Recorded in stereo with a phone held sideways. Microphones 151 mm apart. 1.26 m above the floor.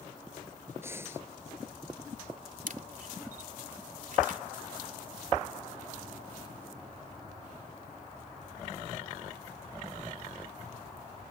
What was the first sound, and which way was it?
Breathing, 15° right (ahead or behind).